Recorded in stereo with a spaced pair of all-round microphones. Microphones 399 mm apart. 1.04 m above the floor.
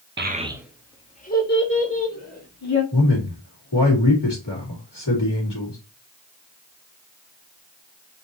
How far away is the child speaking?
About 0.9 m.